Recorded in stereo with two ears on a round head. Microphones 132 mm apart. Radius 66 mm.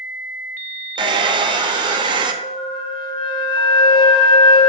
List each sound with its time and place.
1.0 s a hair dryer: 30° right (ahead or behind), 0.6 m
2.4 s a flute: 35° left (ahead or behind), 0.6 m